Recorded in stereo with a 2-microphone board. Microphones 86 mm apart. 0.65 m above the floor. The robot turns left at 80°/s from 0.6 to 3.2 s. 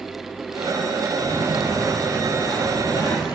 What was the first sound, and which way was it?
Footsteps, 70° right (ahead or behind).